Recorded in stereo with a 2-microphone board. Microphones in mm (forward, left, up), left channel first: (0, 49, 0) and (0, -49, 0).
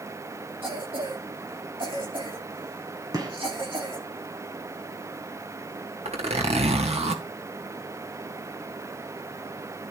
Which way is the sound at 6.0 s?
80° right.